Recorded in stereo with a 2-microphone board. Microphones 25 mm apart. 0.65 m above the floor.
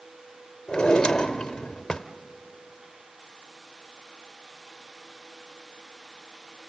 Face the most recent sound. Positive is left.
turn(degrees=30)  # may be behind; listen again after turning